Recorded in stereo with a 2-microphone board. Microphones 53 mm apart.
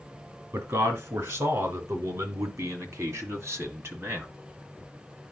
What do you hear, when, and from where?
0.5 s a man speaking: 60° right (ahead or behind), 3.5 m; by 4.3 s 40° right (ahead or behind), 1.9 m